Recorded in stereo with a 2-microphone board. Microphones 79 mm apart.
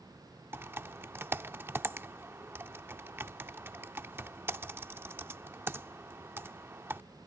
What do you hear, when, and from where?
0.5 s typing on a keyboard: 25° right (ahead or behind)